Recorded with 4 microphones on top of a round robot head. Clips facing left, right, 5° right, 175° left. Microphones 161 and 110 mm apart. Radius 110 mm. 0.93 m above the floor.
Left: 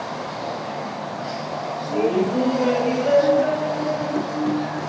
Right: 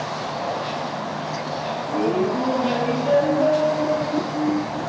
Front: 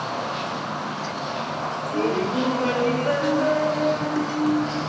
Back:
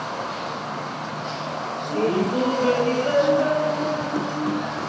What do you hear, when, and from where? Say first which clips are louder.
1.9 s laughter: left 1 dB, back 2 dB; 105° left, 3.5 m